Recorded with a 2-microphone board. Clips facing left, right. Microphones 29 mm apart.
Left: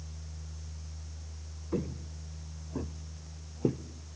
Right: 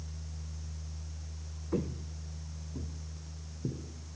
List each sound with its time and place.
1.7 s footsteps: centre (ahead or behind), 1.5 m; by 3.8 s 80° left, 2 m